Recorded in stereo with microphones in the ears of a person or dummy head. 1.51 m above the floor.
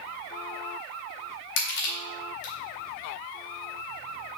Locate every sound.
1.6 s crushing: 75° left (ahead or behind), 3.5 m